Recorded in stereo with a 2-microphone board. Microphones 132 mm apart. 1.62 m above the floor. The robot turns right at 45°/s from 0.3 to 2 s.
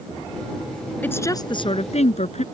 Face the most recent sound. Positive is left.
turn(degrees=55)